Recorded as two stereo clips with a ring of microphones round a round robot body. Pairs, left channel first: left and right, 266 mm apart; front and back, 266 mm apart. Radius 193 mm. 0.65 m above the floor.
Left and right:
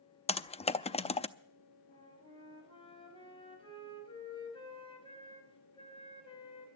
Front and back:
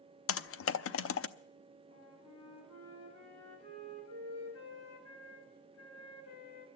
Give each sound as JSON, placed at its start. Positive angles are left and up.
{"t": 0.3, "sound": "typing on a keyboard", "azimuth_deg": 25, "distance_m": 0.7}
{"t": 1.9, "sound": "a flute", "azimuth_deg": 20, "distance_m": 4.5}